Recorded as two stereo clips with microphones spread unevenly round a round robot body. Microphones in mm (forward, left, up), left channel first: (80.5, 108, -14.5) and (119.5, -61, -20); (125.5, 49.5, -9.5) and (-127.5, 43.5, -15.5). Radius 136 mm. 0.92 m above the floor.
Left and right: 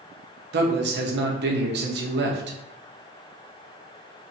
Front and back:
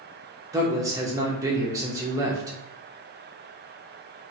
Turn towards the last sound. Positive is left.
turn(degrees=-100)